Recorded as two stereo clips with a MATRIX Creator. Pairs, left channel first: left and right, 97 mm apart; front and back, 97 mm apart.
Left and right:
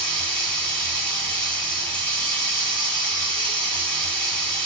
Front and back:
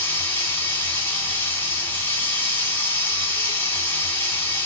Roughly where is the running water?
Ahead left.